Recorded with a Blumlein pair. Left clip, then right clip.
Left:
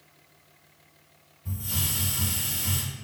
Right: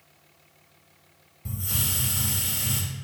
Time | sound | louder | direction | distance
1.4 | a hiss | right 1 dB | 50° right | 1.5 m